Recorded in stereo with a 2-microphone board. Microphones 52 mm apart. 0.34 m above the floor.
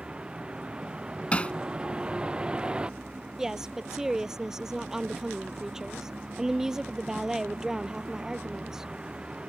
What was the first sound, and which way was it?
A vehicle, 15° right (ahead or behind).